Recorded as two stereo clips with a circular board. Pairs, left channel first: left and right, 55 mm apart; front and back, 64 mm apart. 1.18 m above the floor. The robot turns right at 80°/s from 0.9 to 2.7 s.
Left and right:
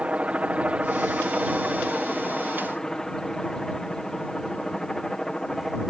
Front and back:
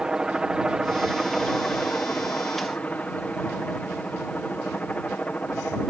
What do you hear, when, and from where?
0.0 s a helicopter: 115° right; by 5.9 s 25° left